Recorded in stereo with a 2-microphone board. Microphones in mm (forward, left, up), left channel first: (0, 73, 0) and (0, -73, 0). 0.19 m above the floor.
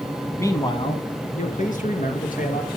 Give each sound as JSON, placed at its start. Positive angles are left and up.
{"t": 0.4, "sound": "a man speaking", "side_deg": 15, "distance_m": 1.1}